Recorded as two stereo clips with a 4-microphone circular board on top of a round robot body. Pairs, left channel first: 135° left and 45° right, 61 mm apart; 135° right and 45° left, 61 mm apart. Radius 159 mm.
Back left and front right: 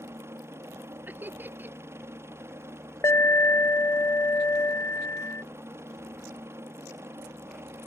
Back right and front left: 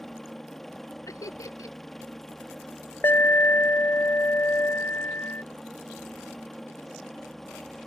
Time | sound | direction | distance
0.0 | a helicopter | 50° right | ?
1.1 | laughter | 100° right | ?
3.0 | an alarm | 175° left | ?